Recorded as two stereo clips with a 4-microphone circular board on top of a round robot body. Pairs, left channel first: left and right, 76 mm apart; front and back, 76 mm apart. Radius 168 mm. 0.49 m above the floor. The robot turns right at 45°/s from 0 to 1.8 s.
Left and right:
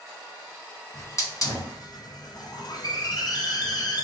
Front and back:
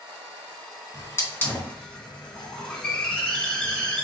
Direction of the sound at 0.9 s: 40° left.